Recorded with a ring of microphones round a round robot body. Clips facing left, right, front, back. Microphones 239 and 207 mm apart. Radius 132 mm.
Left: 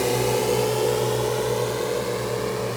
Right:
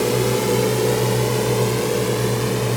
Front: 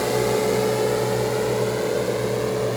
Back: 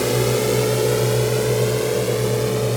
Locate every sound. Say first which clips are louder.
0.0 s a drone: right 3 dB, back 1 dB; 150° right; by 2.8 s 125° right